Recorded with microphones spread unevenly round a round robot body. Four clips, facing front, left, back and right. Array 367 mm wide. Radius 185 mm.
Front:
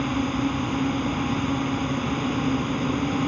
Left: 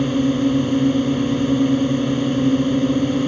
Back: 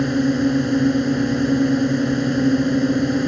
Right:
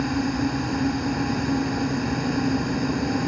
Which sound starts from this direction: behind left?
A drone, at 0.0 s.